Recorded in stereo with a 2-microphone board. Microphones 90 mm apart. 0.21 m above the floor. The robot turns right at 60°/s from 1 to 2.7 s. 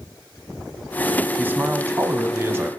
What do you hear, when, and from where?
1.4 s a man speaking: 135° right, 1.1 m; by 2.7 s 55° right, 1.1 m